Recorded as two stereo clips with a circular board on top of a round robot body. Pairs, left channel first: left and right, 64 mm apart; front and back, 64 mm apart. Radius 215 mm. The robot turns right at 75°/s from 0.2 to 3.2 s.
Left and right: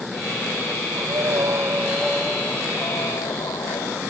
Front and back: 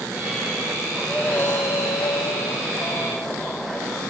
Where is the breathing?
90° right; by 4.0 s 75° left.